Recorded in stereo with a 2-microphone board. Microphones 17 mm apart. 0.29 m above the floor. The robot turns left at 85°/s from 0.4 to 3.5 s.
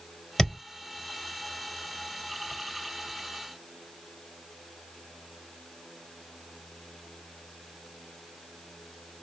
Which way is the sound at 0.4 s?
25° left (ahead or behind).